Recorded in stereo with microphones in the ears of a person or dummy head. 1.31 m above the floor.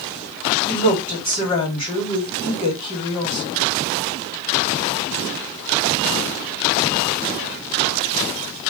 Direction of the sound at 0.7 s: 40° left (ahead or behind).